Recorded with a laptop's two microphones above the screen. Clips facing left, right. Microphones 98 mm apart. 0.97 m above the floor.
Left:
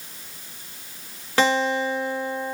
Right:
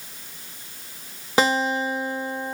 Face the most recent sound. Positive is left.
turn(degrees=-20)  # may be behind; listen again after turning